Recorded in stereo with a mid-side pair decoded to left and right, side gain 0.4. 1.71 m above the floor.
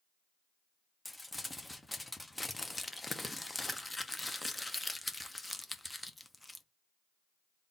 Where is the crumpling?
15° left, 0.7 m.